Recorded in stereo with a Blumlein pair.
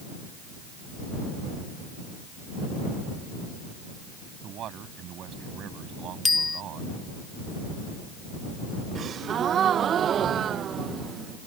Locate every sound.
4.4 s a man speaking: 30° right
6.2 s a bicycle bell: 10° left
8.9 s a gasp: 25° right